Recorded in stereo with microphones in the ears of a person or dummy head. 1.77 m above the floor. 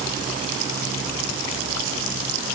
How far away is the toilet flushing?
No toilet flushing in this recording.